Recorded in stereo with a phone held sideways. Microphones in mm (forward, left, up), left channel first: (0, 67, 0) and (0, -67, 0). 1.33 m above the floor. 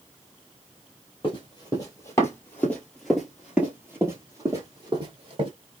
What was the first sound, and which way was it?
Running footsteps, 35° left (ahead or behind).